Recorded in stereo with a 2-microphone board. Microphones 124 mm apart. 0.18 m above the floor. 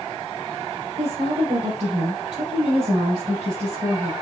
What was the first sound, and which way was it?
A woman speaking, 55° right (ahead or behind).